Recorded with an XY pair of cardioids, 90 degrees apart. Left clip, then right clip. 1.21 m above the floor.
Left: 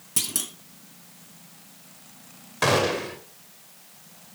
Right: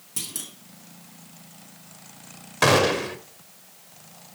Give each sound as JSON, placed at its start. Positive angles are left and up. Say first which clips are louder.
{"t": 0.2, "sound": "a clunk", "louder": "left 5 dB", "azimuth_deg": 45, "distance_m": 2.0}
{"t": 2.6, "sound": "a gunshot", "louder": "right 3 dB", "azimuth_deg": -35, "distance_m": 2.0}